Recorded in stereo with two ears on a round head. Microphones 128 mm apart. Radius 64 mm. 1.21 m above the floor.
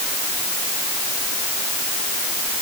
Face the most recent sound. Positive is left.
No sound to turn to.